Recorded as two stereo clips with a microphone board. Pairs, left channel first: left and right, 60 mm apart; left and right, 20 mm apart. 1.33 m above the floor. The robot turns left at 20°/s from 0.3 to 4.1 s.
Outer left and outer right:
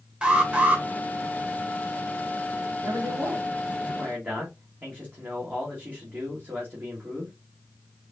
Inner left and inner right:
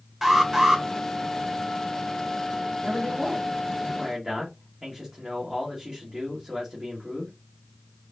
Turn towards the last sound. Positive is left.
turn(degrees=-30)  # may be behind; listen again after turning